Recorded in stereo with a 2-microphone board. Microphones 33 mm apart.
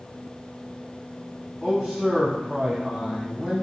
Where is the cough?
No cough in this recording.